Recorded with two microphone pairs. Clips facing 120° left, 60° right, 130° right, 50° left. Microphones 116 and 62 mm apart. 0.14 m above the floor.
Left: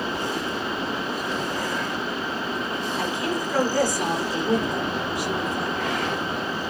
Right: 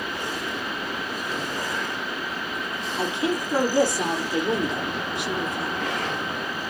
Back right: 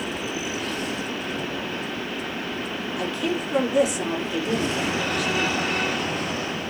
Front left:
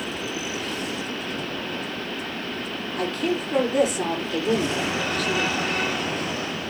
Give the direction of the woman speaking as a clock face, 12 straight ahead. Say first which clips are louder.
Right 3 dB, front left 2 dB; 12 o'clock.